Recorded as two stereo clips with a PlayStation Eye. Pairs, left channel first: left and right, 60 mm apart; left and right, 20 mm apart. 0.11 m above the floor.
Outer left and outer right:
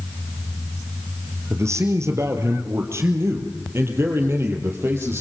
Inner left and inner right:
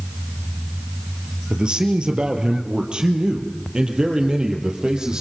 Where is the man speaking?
50° right (ahead or behind), 3 m; by 5.2 s 40° right (ahead or behind), 4.5 m.